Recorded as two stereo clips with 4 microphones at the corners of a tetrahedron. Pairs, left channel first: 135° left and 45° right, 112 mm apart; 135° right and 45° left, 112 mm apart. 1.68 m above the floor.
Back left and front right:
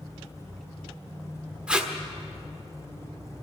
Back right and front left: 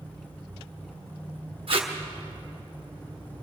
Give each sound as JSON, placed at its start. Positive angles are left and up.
{"t": 1.7, "sound": "tape being pulled", "azimuth_deg": 35, "distance_m": 1.3}